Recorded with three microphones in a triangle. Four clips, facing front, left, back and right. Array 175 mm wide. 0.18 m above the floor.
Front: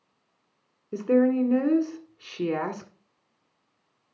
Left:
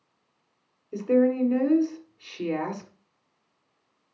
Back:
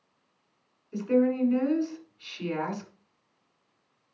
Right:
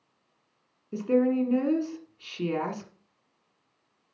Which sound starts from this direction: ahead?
A woman speaking, at 0.9 s.